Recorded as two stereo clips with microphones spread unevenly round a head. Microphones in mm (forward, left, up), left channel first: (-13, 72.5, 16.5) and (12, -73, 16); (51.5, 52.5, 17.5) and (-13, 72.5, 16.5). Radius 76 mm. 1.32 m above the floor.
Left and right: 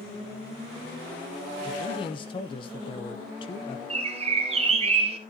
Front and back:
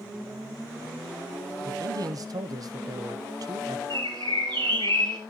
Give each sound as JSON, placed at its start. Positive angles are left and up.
{"t": 1.6, "sound": "a man speaking", "azimuth_deg": 155, "distance_m": 0.8}
{"t": 3.9, "sound": "a bird", "azimuth_deg": -135, "distance_m": 1.9}